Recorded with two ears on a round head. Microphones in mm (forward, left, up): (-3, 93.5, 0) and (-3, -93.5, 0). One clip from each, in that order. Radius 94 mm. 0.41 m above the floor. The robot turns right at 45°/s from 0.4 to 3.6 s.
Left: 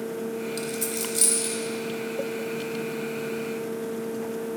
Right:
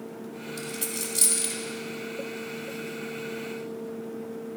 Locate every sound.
0.6 s a dropped coin: 25° left (ahead or behind), 1.1 m; by 1.6 s 20° right (ahead or behind), 1.1 m